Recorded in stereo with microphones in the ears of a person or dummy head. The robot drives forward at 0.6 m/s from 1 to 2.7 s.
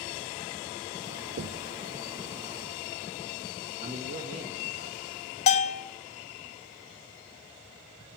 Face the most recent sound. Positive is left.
turn(degrees=40)  # may be behind; listen again after turning